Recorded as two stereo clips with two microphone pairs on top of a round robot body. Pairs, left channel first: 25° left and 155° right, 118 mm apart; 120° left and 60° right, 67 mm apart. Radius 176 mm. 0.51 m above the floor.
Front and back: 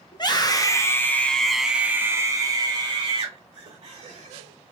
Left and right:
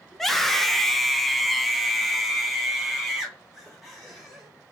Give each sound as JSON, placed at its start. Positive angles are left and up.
{"t": 0.1, "sound": "a scream", "azimuth_deg": 25, "distance_m": 1.3}